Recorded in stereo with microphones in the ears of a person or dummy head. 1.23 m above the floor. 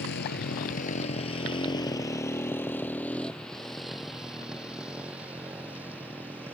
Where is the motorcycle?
60° left (ahead or behind); by 6.5 s 15° right (ahead or behind).